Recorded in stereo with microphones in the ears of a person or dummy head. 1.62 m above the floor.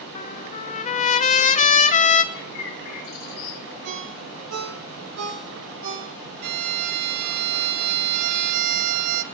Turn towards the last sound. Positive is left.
turn(degrees=-50)  # may be behind; listen again after turning